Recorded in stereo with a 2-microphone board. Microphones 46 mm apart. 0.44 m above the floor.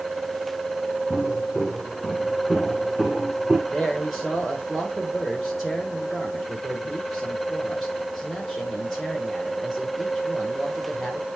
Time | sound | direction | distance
1.1 | footsteps | 15° left (ahead or behind) | 3.5 m
3.7 | a man speaking | 5° left (ahead or behind) | 1.4 m